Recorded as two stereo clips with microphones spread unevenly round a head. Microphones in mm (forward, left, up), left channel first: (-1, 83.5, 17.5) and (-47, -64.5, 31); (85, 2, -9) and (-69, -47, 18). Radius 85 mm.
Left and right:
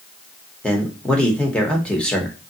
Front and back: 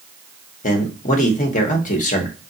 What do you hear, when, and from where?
0.6 s a man speaking: 5° right, 0.9 m